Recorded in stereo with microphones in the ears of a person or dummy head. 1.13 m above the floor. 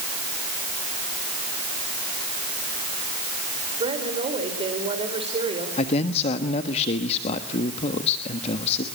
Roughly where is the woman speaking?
Right.